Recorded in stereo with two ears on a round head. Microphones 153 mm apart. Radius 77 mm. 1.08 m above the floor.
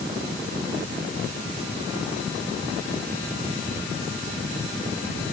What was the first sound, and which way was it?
Only background noise.